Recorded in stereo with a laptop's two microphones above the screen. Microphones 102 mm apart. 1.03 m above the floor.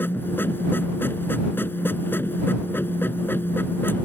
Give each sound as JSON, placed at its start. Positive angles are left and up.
{"t": 0.0, "sound": "a machine running", "side_deg": 20}